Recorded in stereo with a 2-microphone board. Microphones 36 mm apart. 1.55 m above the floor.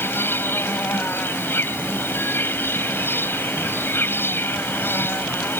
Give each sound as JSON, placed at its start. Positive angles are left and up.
{"t": 0.0, "sound": "an insect", "side_deg": 90}